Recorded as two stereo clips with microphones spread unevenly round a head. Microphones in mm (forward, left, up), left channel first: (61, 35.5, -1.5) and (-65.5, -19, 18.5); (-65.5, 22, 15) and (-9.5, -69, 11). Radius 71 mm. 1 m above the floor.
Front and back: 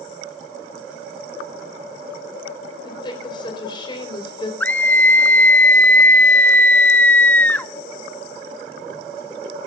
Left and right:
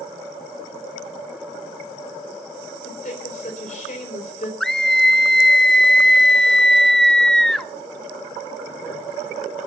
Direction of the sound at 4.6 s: 30° left.